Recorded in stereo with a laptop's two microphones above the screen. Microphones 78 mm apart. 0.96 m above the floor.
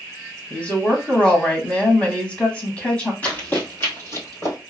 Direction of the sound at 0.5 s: 15° left (ahead or behind).